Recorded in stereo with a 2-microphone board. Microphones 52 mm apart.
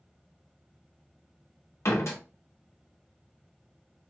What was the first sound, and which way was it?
A door slam, 60° left (ahead or behind).